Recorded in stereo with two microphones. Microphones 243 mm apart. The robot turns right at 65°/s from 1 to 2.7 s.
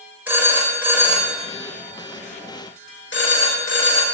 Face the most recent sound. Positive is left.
turn(degrees=50)  # may be behind; listen again after turning